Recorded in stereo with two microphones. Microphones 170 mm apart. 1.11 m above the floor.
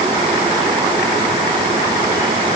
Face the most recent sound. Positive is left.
No sound to turn to.